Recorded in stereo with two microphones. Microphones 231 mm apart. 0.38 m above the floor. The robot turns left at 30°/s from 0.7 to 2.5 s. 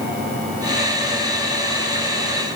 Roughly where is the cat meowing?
I don't hear a cat meowing.